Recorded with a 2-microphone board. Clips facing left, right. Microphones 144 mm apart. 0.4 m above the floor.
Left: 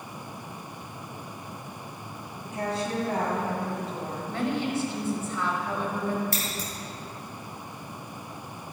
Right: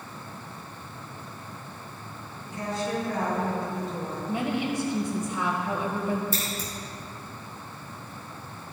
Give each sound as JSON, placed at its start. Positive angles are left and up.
{"t": 2.5, "sound": "a woman speaking", "side_deg": 70, "distance_m": 2.5}
{"t": 4.3, "sound": "a woman speaking", "side_deg": -15, "distance_m": 1.7}
{"t": 6.3, "sound": "scissors", "side_deg": 75, "distance_m": 2.5}